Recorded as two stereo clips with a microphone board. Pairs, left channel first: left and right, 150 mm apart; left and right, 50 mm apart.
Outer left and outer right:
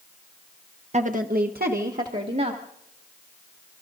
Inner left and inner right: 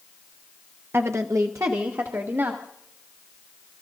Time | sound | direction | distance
0.9 | a woman speaking | 50° right (ahead or behind) | 0.8 m